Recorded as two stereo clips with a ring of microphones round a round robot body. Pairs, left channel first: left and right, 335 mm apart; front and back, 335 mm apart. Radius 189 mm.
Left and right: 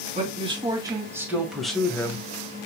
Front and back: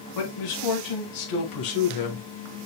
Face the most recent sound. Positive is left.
turn(degrees=10)